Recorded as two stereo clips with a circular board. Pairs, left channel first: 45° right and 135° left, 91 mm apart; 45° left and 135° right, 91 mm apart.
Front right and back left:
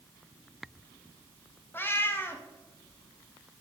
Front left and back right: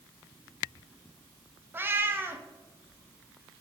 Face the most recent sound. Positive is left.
turn(degrees=-90)